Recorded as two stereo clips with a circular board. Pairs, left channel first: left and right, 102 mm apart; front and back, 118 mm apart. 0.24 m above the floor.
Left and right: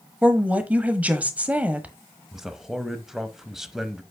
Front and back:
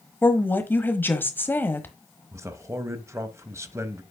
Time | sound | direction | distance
0.2 | a woman speaking | 40° right | 1.0 m
2.3 | a man speaking | 170° right | 0.9 m